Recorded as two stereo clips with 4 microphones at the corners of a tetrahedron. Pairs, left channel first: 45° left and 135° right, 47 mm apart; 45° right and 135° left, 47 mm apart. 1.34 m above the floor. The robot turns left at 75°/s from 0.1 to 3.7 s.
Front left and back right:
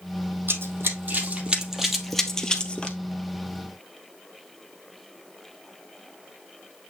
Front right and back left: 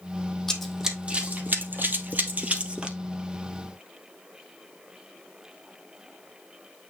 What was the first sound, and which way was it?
Running footsteps, 130° right.